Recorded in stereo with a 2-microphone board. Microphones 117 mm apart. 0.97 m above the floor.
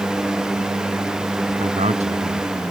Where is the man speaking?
70° right (ahead or behind).